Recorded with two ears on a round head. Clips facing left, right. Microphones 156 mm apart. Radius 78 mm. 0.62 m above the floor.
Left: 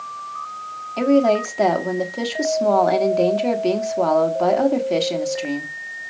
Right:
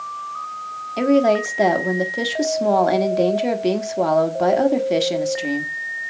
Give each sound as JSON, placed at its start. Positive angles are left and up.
{"t": 1.0, "sound": "a woman speaking", "side_deg": -10, "distance_m": 1.3}